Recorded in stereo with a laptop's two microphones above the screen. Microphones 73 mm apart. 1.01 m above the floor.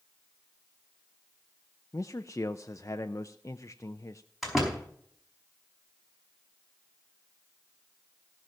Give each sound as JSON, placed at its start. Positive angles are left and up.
{"t": 1.9, "sound": "a man speaking", "side_deg": 45, "distance_m": 0.5}
{"t": 4.4, "sound": "a door slam", "side_deg": -5, "distance_m": 5.0}